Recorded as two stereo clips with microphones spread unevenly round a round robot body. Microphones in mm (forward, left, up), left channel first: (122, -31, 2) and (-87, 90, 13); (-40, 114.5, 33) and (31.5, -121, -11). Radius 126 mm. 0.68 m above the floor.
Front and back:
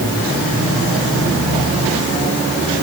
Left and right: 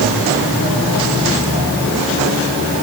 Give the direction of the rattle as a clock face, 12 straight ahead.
No rattle in this recording.